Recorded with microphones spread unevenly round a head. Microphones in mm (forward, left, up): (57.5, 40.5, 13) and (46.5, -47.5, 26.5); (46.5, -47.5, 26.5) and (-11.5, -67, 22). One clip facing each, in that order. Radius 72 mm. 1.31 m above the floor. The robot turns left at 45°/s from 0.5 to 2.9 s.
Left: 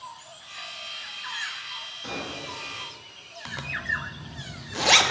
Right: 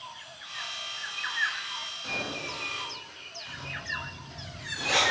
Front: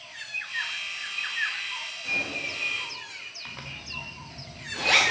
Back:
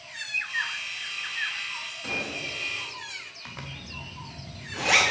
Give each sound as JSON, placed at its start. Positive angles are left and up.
{"t": 2.0, "sound": "a gunshot", "azimuth_deg": 150, "distance_m": 2.0}
{"t": 3.5, "sound": "a zipper", "azimuth_deg": 115, "distance_m": 1.0}